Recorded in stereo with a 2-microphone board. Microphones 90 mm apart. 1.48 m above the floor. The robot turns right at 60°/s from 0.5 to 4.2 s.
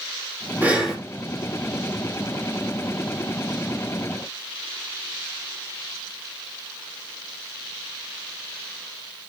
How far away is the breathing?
About 3 m.